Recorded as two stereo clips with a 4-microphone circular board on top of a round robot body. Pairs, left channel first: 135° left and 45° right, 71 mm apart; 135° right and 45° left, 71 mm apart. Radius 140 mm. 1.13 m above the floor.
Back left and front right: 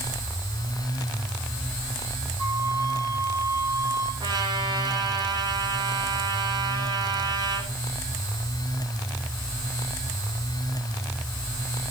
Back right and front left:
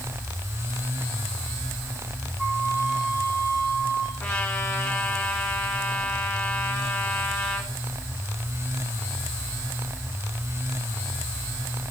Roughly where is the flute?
Ahead right.